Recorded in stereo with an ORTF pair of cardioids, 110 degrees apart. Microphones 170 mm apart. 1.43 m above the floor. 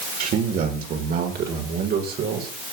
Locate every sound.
0.2 s a man speaking: 55° right, 6 m; by 2.5 s 70° right, 8 m